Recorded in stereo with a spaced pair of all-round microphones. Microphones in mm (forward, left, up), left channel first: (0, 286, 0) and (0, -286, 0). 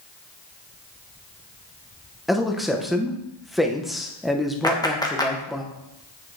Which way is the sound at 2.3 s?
Centre (ahead or behind).